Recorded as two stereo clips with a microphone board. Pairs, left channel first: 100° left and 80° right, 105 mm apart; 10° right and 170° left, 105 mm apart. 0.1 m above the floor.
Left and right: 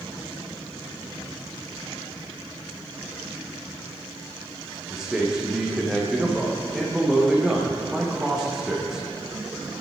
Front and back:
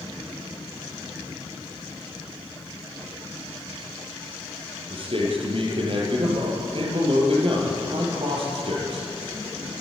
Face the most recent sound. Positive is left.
turn(degrees=-165)